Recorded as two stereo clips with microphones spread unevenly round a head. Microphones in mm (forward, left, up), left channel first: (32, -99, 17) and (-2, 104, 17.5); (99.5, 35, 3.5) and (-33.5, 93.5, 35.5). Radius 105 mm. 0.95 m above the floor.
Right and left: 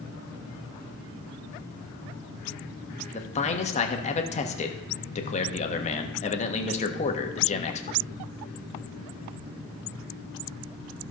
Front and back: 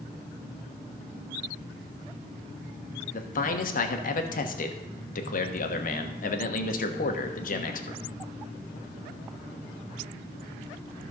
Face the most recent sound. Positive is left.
turn(degrees=-25)